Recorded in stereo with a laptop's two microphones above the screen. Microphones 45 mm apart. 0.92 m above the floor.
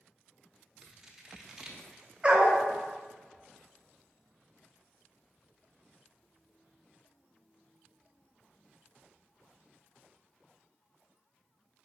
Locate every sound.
0.8 s scissors: 10° right (ahead or behind), 0.5 m
2.2 s a dog barking: 25° right (ahead or behind), 0.6 m